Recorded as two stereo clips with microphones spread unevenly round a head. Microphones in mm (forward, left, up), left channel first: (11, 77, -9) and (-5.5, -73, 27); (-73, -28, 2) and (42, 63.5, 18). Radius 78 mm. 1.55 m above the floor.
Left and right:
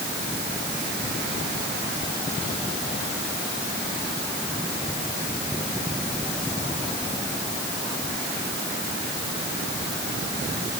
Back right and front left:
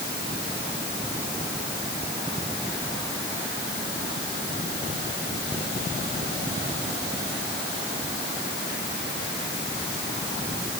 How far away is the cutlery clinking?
No cutlery clinking in this recording.